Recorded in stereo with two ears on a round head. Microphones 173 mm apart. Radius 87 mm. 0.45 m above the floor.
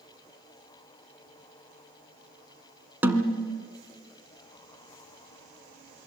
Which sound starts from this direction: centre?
A snare drum, at 3.0 s.